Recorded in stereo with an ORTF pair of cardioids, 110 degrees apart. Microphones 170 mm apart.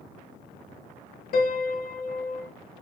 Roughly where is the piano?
Ahead left.